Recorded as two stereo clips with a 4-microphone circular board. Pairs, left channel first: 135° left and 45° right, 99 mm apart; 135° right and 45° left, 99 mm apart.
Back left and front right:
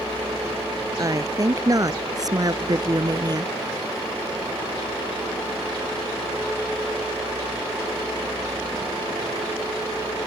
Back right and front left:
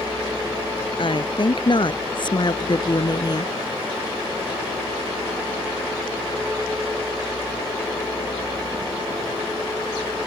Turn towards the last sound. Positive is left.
turn(degrees=-90)